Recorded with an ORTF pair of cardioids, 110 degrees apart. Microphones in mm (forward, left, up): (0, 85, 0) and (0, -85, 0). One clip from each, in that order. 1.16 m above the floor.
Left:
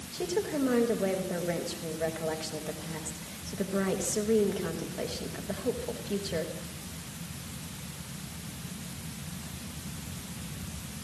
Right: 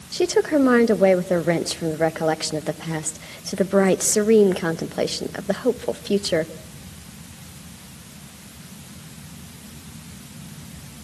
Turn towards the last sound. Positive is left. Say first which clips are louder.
# right 12 dB
turn(degrees=-65)